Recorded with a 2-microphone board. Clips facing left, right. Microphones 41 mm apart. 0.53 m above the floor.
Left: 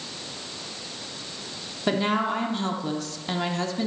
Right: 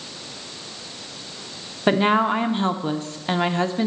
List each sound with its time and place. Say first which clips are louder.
1.9 s a woman speaking: right 6 dB; 35° right (ahead or behind), 0.8 m